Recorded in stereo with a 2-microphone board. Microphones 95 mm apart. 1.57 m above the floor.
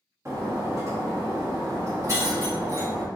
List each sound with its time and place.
0.2 s breaking glass: 35° right (ahead or behind), 1.2 m